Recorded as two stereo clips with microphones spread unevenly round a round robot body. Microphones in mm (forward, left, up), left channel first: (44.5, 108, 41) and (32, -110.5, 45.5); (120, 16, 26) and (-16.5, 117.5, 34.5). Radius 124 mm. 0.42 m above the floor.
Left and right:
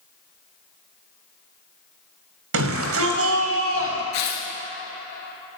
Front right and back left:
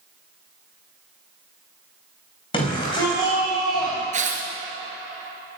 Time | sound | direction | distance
2.5 | a shout | 100° right | 3 m
4.1 | tearing paper | 100° left | 2.5 m